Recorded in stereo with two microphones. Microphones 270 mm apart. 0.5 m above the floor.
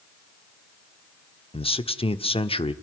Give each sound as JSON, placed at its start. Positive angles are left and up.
{"t": 1.5, "sound": "a man speaking", "side_deg": 20, "distance_m": 1.2}